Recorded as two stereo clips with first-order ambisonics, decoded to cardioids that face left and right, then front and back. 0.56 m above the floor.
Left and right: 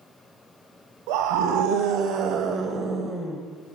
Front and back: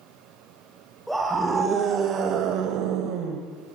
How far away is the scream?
About 2.5 m.